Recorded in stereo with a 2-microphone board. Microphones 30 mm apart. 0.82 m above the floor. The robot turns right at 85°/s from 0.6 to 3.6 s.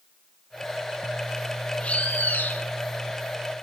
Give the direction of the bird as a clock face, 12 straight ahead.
11 o'clock.